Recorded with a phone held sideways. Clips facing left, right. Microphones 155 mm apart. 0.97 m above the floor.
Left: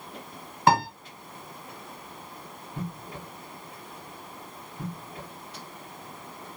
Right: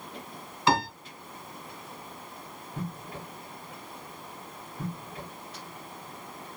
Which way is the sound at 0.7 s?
55° left (ahead or behind).